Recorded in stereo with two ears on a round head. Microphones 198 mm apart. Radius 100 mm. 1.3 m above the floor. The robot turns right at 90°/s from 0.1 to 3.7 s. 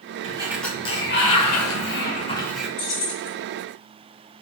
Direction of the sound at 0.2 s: 30° right.